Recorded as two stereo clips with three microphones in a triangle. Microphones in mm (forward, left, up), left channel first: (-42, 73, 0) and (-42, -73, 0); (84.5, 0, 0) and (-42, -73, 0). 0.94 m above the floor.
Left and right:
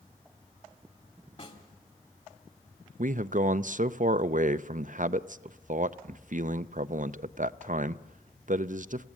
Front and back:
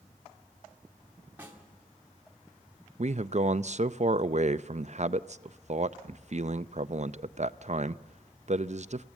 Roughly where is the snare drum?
Behind left.